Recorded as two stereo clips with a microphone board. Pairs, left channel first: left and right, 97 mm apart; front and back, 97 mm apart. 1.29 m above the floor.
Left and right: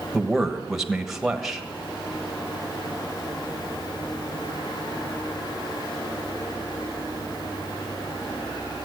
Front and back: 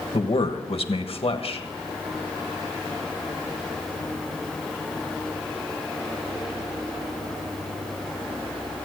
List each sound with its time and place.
0.1 s a man speaking: 5° right, 1.3 m